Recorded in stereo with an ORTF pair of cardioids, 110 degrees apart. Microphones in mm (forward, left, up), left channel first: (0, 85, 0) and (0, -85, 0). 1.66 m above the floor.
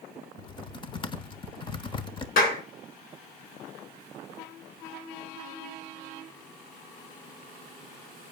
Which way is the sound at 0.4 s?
30° left.